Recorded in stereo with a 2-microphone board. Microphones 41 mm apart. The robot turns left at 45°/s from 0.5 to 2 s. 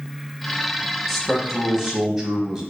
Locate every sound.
1.1 s a man speaking: centre (ahead or behind), 1.0 m; by 2.6 s 15° right (ahead or behind), 1.0 m